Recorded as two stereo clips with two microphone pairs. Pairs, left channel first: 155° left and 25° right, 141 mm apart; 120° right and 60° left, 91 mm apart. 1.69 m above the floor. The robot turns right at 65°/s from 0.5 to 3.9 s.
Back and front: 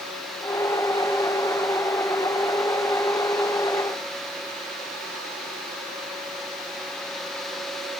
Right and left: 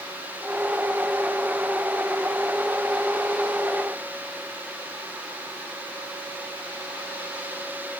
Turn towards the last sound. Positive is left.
No sound to turn to.